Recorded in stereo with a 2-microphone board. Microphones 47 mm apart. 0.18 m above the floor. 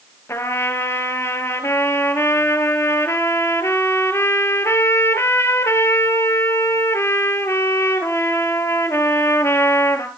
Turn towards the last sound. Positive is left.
turn(degrees=70)  # may be behind; listen again after turning